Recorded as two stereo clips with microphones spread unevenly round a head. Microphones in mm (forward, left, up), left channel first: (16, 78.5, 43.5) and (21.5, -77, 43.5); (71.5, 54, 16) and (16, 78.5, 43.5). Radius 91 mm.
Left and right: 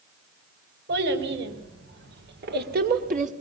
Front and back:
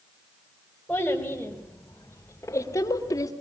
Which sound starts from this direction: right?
A child speaking, at 0.9 s.